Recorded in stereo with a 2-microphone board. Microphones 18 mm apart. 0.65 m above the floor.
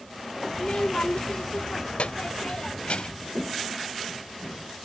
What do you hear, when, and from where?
0.5 s a child speaking: 55° left (ahead or behind); by 3.3 s 60° left (ahead or behind)